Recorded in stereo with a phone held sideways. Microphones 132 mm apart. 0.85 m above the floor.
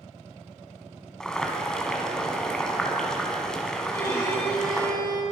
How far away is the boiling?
About 1.8 m.